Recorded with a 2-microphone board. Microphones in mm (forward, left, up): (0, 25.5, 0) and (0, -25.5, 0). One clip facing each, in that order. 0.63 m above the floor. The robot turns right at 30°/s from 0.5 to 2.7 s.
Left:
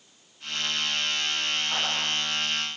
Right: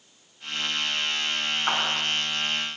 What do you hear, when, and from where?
1.7 s a clap: 85° right, 5.5 m; by 2.1 s 75° right (ahead or behind), 5.5 m